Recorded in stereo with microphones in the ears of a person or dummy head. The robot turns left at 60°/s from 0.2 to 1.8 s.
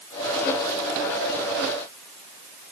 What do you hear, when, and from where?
Only background noise.